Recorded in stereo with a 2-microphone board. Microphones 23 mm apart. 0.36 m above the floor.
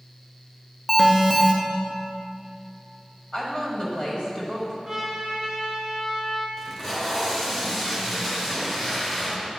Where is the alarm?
10° left (ahead or behind), 0.6 m.